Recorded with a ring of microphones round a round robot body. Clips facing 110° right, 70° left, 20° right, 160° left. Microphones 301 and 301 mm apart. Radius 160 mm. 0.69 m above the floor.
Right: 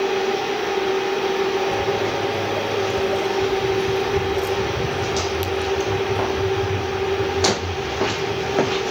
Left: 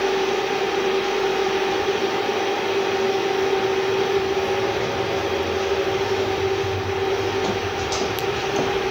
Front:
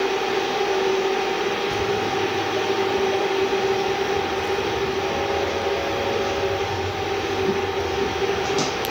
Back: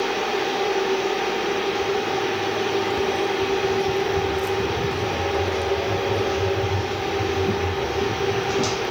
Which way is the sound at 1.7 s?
55° right.